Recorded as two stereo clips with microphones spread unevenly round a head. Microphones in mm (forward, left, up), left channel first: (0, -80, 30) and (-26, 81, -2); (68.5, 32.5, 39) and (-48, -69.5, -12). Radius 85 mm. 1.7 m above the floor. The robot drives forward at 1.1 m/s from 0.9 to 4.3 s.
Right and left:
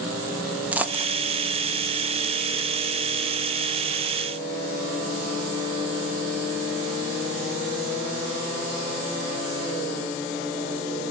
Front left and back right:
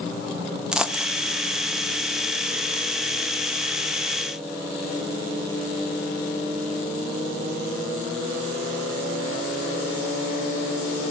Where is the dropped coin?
Straight ahead, 1.0 m; by 1.1 s 5° left, 0.9 m.